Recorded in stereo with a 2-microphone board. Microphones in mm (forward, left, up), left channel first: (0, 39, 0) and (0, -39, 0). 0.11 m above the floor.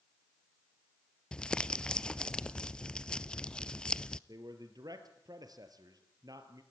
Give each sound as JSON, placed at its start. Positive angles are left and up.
{"t": 1.3, "sound": "crumpling", "side_deg": 10, "distance_m": 0.5}
{"t": 4.3, "sound": "a man speaking", "side_deg": -55, "distance_m": 2.5}